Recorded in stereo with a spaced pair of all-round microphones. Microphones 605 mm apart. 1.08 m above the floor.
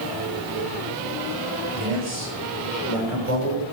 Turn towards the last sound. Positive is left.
turn(degrees=-75)  # may be behind; listen again after turning